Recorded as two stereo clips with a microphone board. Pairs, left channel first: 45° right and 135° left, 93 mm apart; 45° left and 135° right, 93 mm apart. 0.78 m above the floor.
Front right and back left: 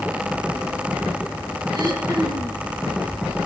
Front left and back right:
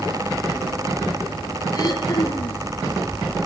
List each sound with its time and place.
1.7 s throat clearing: 95° left, 4.5 m